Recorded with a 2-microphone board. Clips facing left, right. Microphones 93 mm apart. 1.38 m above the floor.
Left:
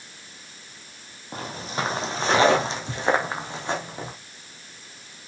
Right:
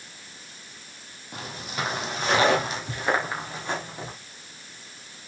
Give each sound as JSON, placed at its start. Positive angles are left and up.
{"t": 1.3, "sound": "footsteps", "side_deg": 35, "distance_m": 2.0}